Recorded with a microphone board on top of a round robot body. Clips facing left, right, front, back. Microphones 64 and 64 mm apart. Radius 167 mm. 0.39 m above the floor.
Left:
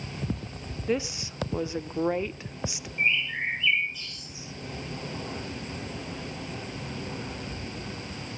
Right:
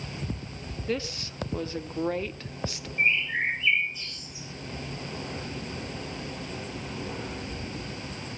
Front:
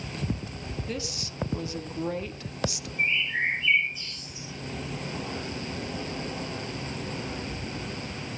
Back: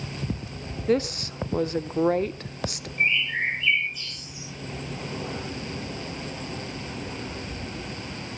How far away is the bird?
About 9.5 m.